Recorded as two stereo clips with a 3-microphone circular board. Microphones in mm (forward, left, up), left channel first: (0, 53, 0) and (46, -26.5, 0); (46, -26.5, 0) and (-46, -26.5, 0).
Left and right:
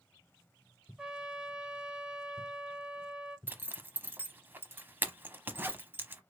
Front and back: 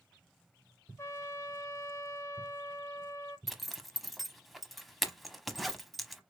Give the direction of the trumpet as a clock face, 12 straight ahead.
12 o'clock.